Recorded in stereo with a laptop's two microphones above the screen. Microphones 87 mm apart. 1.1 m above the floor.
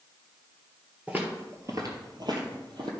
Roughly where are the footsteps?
Centre.